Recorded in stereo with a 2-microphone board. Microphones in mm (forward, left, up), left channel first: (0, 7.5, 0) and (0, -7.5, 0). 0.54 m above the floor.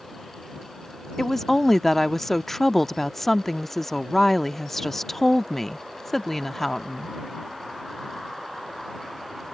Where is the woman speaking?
15° left (ahead or behind).